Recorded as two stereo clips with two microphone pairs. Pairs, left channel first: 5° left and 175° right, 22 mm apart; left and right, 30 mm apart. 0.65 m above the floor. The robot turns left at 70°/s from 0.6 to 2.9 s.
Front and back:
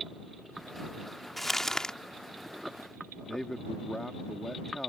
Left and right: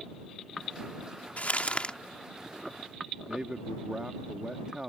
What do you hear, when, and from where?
1.4 s crumpling: 85° left; by 2.0 s 40° left
3.3 s a man speaking: 45° right